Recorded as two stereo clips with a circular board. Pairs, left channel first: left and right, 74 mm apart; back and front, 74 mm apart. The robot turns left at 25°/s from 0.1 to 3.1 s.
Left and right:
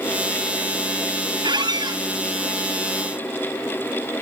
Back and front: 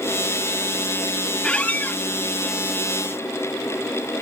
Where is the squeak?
100° right, 0.6 m; by 2.0 s 115° right, 0.6 m.